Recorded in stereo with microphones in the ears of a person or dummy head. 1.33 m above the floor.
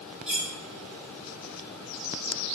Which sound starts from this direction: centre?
Cutlery clinking, at 0.3 s.